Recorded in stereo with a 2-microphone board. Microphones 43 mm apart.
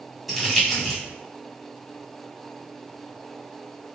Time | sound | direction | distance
0.3 | crumpling | 5° right (ahead or behind) | 1.6 m